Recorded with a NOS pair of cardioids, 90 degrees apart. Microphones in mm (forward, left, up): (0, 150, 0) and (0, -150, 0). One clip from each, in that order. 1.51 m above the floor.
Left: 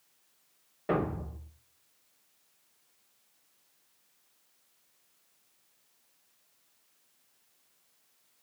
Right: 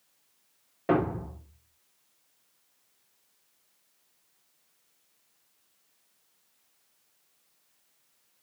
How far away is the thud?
About 2.5 m.